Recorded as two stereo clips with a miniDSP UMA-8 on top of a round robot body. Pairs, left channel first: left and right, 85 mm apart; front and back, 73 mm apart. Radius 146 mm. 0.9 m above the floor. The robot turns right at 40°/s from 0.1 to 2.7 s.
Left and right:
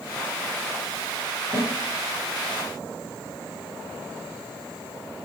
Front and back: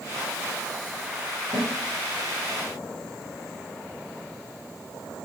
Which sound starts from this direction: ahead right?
A snare drum, at 1.5 s.